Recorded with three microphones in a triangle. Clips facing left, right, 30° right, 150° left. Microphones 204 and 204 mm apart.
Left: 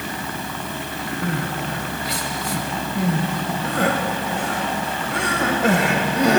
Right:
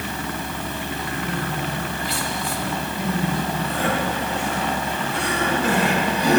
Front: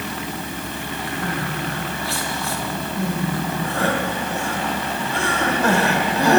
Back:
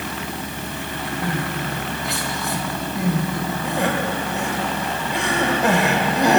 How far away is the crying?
About 1.5 m.